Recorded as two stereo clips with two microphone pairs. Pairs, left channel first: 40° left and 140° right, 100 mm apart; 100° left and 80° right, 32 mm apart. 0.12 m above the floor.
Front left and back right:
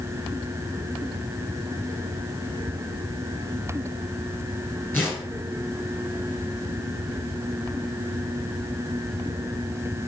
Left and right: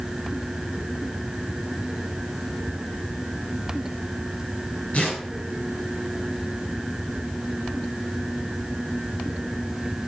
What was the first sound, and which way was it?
Tearing paper, 100° left.